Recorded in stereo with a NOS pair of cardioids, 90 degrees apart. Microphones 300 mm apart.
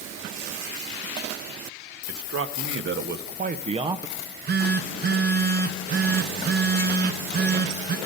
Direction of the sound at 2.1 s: 55° right.